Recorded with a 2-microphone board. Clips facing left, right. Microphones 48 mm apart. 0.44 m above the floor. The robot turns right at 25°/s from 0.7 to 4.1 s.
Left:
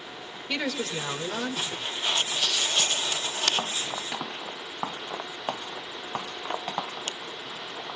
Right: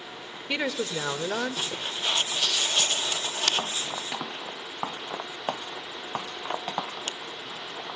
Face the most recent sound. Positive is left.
turn(degrees=-75)